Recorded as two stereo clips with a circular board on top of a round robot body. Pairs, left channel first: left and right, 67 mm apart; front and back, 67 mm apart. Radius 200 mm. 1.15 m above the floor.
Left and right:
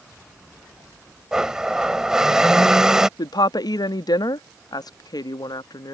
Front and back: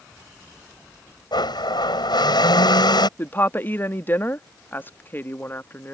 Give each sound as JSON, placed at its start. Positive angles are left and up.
{"t": 1.3, "sound": "a blender", "azimuth_deg": -10}
{"t": 3.2, "sound": "a woman speaking", "azimuth_deg": 65}